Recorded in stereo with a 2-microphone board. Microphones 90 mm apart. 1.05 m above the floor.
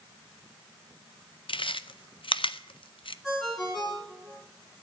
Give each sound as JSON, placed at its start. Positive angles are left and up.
{"t": 1.5, "sound": "chewing", "side_deg": 70, "distance_m": 0.6}
{"t": 3.2, "sound": "a ringtone", "side_deg": 5, "distance_m": 4.5}